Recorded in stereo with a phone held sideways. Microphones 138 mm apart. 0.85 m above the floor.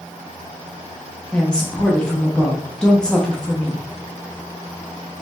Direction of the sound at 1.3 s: 5° left (ahead or behind).